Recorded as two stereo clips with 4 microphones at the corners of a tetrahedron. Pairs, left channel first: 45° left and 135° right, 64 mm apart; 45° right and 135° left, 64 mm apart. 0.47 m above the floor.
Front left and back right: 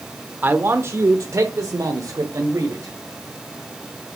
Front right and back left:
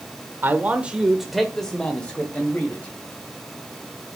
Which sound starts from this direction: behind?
A man speaking, at 0.4 s.